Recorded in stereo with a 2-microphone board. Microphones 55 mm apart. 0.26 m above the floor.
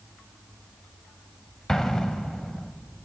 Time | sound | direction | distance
1.7 | an explosion | 10° left (ahead or behind) | 0.6 m